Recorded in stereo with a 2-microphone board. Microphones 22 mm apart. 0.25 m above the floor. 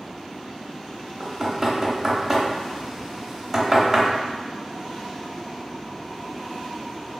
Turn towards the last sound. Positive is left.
turn(degrees=-20)  # may be behind; listen again after turning